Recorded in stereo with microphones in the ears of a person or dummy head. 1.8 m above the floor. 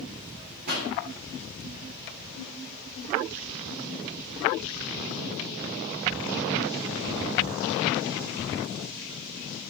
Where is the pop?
55° right (ahead or behind), 8.5 m.